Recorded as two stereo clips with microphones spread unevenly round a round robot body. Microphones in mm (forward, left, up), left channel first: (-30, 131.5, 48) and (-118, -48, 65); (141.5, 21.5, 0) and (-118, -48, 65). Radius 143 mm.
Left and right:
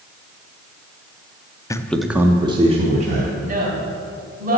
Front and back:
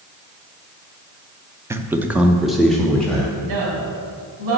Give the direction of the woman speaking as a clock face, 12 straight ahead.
5 o'clock.